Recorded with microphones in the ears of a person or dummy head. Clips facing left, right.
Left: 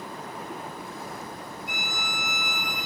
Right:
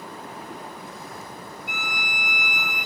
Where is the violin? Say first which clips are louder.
Right 2 dB; 35° left (ahead or behind), 3 m.